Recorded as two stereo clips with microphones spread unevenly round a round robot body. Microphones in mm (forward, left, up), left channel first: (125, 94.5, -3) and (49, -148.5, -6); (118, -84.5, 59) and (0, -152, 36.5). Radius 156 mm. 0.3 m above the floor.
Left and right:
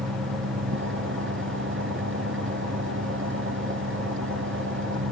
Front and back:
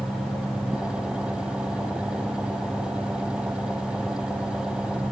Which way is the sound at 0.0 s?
65° right.